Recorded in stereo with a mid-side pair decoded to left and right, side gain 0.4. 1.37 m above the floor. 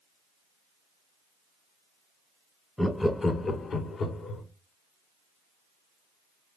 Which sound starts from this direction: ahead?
Laughter, at 2.8 s.